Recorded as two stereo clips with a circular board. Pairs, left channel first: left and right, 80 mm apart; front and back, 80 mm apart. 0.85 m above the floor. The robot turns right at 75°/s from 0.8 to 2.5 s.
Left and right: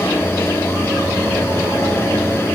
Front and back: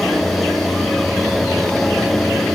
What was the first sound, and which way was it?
Only background noise.